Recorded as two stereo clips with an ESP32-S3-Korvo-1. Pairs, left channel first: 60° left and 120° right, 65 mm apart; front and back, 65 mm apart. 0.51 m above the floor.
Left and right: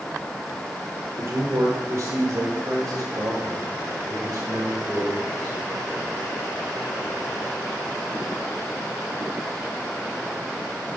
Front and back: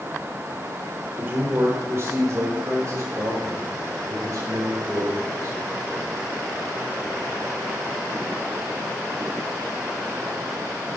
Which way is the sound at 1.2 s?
140° right.